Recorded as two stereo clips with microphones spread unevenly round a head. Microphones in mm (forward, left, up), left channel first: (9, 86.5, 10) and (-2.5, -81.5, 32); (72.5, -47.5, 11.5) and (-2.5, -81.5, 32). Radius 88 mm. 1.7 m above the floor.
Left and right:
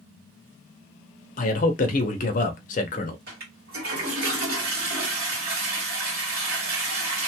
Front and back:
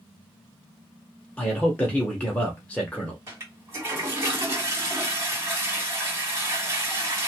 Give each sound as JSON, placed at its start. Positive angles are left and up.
{"t": 1.4, "sound": "a man speaking", "azimuth_deg": 120, "distance_m": 0.6}
{"t": 3.3, "sound": "a toilet flushing", "azimuth_deg": -110, "distance_m": 2.5}